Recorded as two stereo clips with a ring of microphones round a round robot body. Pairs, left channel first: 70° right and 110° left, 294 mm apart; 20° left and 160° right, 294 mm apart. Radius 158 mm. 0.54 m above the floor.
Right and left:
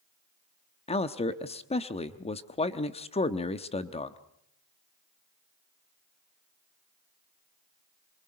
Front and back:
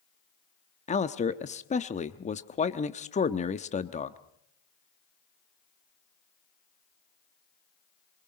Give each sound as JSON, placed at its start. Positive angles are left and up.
{"t": 0.9, "sound": "a man speaking", "azimuth_deg": -20, "distance_m": 0.9}